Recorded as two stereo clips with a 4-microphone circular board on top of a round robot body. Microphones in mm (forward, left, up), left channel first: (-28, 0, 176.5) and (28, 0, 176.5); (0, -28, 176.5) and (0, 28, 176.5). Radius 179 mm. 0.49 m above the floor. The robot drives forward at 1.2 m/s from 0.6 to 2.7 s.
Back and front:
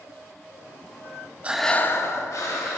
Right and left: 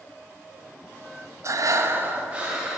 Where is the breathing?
65° left, 0.5 m; by 2.8 s 165° left, 1.4 m.